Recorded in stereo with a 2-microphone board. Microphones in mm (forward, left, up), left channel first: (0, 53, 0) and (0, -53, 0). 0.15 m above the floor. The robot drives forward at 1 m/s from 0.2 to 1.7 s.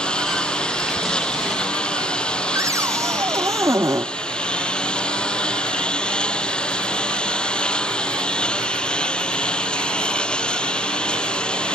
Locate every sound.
0.0 s a lawn mower: 10° left (ahead or behind)
2.5 s a cupboard door: 30° right (ahead or behind)